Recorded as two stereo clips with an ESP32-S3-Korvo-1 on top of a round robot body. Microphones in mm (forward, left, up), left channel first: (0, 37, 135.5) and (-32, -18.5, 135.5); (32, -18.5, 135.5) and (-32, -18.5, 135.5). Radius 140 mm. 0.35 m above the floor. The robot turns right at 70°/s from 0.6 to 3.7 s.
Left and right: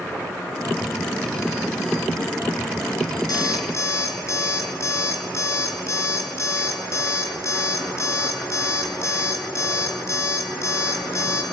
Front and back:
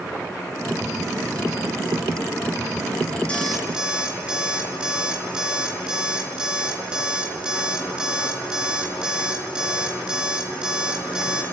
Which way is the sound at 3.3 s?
75° left.